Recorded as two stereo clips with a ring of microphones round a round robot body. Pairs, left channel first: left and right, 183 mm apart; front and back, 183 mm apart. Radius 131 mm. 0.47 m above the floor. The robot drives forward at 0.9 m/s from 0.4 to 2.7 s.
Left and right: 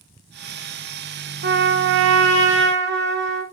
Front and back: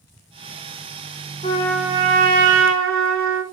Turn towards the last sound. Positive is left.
turn(degrees=-140)